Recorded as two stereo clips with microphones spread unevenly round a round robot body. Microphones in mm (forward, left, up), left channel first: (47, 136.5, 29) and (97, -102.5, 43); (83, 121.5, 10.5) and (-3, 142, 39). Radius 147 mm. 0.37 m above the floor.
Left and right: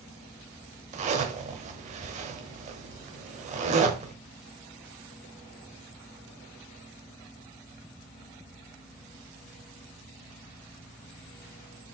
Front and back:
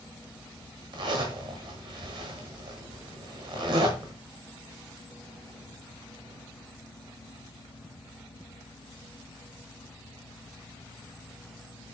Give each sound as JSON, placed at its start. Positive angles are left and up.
{"t": 0.9, "sound": "a zipper", "azimuth_deg": -140, "distance_m": 1.2}